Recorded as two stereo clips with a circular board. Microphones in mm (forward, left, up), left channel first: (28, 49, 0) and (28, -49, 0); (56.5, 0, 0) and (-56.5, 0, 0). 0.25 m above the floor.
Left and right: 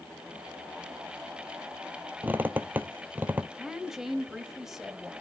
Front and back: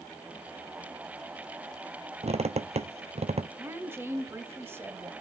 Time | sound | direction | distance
2.2 | a squeak | 160° right | 0.7 m
3.6 | a woman speaking | 165° right | 1.1 m